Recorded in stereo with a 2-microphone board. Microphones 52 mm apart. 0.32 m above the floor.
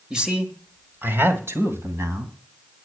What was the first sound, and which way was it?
A man speaking, 10° right (ahead or behind).